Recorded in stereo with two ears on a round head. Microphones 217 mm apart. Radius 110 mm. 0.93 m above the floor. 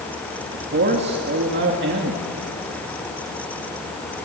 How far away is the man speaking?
About 2.0 m.